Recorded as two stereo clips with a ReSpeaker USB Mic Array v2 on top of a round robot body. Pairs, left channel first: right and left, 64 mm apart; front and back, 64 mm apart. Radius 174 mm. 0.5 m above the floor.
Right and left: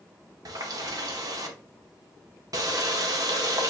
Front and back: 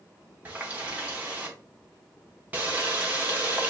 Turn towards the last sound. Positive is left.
turn(degrees=110)